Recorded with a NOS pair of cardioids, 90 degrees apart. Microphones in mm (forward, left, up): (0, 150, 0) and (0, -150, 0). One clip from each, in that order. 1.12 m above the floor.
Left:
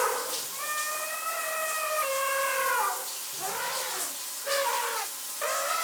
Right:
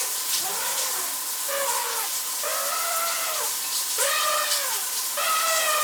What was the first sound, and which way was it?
Running water, 55° right.